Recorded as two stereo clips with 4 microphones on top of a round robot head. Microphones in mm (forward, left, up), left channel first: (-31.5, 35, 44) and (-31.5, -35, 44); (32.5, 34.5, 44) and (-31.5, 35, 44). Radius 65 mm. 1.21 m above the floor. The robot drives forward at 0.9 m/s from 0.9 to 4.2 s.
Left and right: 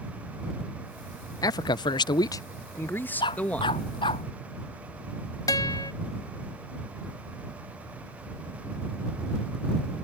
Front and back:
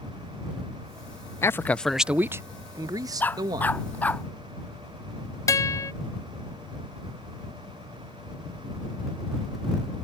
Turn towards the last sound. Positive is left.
turn(degrees=35)